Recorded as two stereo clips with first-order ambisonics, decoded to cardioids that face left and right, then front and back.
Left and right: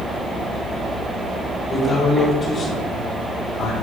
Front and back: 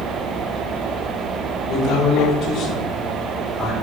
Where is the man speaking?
25° left, 1.6 m; by 3.7 s 65° left, 1.1 m.